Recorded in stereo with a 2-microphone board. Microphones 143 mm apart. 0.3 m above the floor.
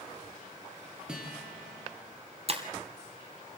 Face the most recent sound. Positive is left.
turn(degrees=-45)  # may be behind; listen again after turning